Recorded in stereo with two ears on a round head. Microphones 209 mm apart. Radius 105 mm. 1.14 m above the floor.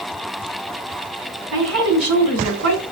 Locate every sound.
1.5 s a woman speaking: 65° right (ahead or behind), 4.5 m